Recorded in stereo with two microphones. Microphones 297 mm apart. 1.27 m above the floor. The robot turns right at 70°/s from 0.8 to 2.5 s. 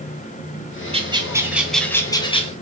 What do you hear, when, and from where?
0.9 s a bird: 20° right (ahead or behind), 0.6 m; by 2.5 s 20° left (ahead or behind), 0.6 m